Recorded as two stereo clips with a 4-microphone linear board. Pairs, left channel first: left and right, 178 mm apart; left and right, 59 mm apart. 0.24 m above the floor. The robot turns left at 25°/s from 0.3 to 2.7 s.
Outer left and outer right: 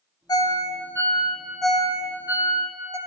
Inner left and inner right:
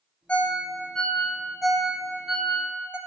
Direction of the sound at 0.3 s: 25° left (ahead or behind).